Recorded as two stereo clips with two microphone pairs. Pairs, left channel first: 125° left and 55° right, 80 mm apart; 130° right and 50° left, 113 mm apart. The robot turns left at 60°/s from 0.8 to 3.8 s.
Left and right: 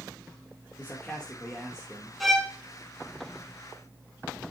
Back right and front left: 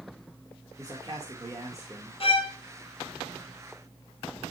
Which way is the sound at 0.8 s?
80° left.